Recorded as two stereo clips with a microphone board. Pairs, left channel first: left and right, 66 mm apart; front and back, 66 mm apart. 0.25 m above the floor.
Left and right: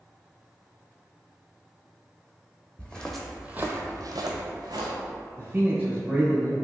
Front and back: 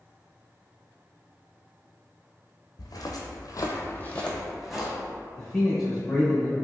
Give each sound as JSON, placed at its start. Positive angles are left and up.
{"t": 2.8, "sound": "footsteps", "azimuth_deg": 15, "distance_m": 0.7}
{"t": 5.4, "sound": "a man speaking", "azimuth_deg": -85, "distance_m": 0.9}